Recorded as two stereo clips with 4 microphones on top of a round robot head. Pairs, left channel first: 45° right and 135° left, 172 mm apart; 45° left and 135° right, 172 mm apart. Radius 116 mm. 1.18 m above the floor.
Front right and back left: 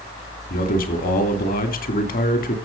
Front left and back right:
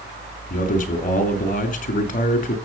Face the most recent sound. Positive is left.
turn(degrees=0)